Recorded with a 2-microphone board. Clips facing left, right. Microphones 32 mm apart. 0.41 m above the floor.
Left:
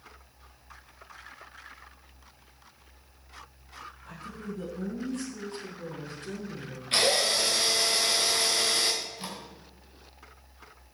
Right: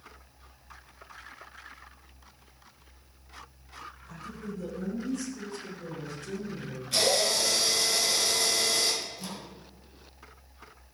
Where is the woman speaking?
60° left (ahead or behind), 5.5 m; by 6.8 s 45° left (ahead or behind), 6 m.